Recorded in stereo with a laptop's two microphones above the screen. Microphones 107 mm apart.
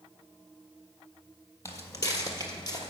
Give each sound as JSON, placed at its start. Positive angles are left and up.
{"t": 1.6, "sound": "footsteps", "side_deg": 30, "distance_m": 1.4}